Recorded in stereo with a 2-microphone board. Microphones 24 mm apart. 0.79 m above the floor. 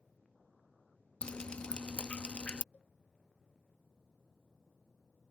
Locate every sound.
1.2 s dripping: 55° left (ahead or behind)
2.7 s a cowbell: 80° left